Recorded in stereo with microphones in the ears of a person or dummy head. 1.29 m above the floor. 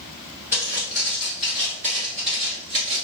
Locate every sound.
0.5 s footsteps: 10° right (ahead or behind), 1.5 m; by 3.1 s 30° right (ahead or behind), 1.5 m